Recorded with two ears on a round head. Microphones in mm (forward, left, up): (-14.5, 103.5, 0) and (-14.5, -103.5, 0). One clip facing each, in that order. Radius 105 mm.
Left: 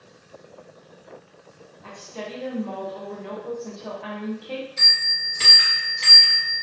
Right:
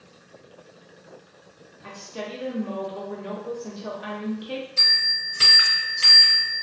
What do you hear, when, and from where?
1.8 s a woman speaking: 20° right (ahead or behind), 0.6 m
4.8 s a bell: 15° right (ahead or behind), 0.6 m